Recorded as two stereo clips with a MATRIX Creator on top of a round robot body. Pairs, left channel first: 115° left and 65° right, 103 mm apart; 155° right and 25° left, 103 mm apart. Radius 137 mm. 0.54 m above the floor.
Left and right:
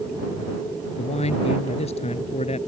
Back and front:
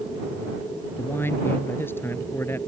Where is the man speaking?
135° left.